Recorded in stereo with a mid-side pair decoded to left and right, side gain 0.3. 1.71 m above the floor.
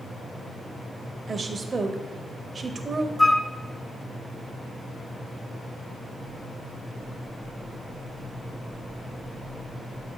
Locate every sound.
1.3 s a woman speaking: 50° right, 0.8 m
3.2 s a flute: 25° left, 0.5 m